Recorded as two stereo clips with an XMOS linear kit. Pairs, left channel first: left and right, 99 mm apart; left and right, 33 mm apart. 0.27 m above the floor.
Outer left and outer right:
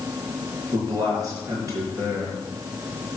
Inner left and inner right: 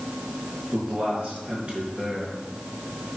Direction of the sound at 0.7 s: 35° right (ahead or behind).